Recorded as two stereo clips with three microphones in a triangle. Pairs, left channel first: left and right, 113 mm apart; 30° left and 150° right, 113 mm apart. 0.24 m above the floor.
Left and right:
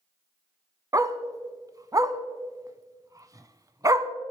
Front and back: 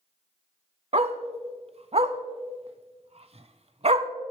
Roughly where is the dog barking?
Behind right.